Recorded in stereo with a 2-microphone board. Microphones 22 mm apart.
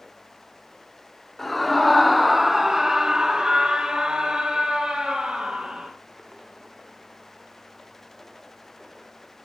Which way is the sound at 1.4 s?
15° left (ahead or behind).